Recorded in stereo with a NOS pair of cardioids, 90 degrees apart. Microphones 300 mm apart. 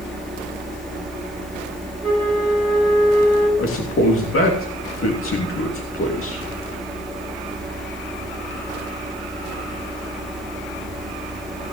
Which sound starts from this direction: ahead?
A fan, at 0.0 s.